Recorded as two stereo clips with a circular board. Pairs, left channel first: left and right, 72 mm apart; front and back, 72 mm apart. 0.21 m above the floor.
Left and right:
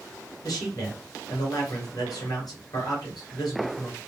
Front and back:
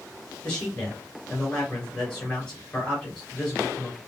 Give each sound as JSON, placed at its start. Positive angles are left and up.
{"t": 0.4, "sound": "a man speaking", "azimuth_deg": 75, "distance_m": 2.5}